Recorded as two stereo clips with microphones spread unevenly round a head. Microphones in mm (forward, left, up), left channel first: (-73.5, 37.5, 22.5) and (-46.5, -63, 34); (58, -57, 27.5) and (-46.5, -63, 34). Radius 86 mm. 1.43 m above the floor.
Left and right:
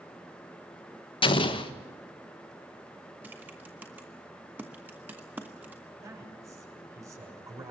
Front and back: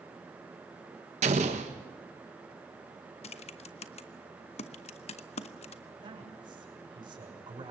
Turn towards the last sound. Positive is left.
turn(degrees=-135)